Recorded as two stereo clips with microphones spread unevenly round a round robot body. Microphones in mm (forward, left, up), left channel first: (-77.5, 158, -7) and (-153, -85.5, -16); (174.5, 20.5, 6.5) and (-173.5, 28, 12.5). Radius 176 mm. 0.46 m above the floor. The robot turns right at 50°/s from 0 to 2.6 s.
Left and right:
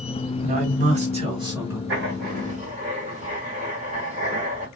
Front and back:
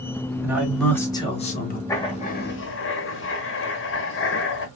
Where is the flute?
No flute in this recording.